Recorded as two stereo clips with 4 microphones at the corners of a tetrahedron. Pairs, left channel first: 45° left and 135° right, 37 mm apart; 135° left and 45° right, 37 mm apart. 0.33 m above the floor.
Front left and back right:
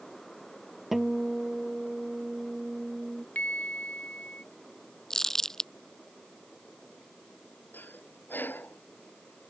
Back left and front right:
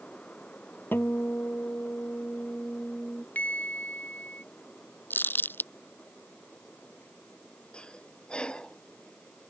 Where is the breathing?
70° left.